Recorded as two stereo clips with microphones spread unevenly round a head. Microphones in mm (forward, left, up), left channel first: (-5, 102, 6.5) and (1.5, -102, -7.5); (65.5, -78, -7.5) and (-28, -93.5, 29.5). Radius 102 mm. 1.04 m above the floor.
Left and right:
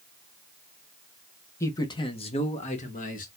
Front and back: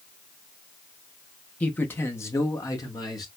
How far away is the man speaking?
About 0.8 m.